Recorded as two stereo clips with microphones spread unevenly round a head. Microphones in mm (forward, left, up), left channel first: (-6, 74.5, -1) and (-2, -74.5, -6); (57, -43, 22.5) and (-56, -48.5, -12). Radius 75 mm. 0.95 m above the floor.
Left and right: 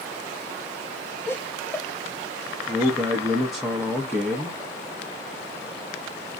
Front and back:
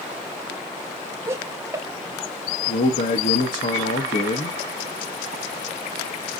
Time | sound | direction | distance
1.3 | laughter | 160° left | 1.0 m
2.7 | a man speaking | straight ahead | 0.8 m